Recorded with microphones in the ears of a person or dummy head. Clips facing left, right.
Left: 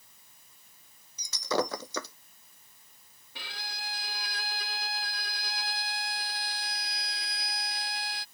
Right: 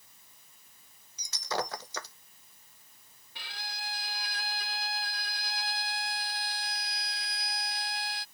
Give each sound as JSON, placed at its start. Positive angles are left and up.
{"t": 1.2, "sound": "breaking glass", "side_deg": 75}
{"t": 3.4, "sound": "a violin", "side_deg": 55}